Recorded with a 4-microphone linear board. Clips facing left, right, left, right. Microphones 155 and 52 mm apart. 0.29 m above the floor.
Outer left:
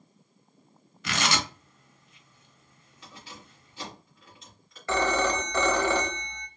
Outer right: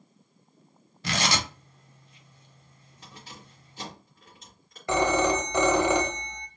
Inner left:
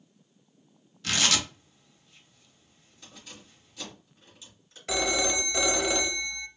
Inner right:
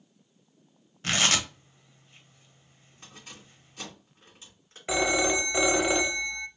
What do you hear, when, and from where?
1.0 s tearing paper: 35° right (ahead or behind), 0.9 m
3.0 s keys jangling: 40° right (ahead or behind), 2 m
4.9 s a phone ringing: 15° right (ahead or behind), 0.6 m